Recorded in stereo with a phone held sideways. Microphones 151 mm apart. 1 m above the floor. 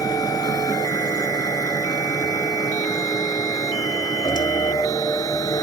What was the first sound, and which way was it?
A machine running, 25° left (ahead or behind).